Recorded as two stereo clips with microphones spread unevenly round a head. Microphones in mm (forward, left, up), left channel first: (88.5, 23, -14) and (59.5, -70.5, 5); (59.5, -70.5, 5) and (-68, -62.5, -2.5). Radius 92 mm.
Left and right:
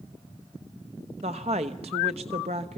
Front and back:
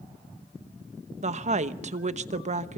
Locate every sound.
1.2 s a woman speaking: 160° right, 1.0 m